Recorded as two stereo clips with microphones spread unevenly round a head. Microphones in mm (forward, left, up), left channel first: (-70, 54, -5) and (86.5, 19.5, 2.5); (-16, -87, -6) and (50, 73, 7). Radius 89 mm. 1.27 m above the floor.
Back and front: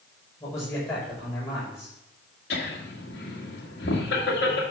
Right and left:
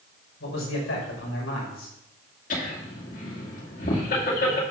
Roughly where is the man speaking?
Behind right.